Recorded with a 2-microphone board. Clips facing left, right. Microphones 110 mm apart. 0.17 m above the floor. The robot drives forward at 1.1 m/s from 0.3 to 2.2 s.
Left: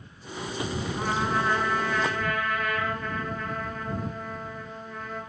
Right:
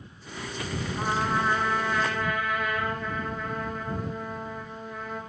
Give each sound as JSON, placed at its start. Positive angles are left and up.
{"t": 1.0, "sound": "a trumpet", "side_deg": -10, "distance_m": 0.8}